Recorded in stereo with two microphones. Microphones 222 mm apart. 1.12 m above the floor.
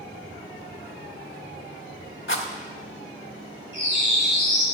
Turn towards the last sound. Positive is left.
turn(degrees=-50)  # may be behind; listen again after turning